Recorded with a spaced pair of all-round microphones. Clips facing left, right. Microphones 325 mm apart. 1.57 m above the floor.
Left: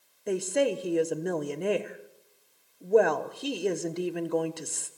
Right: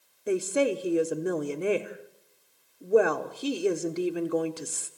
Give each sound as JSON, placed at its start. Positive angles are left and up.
{"t": 0.3, "sound": "a woman speaking", "side_deg": -5, "distance_m": 1.1}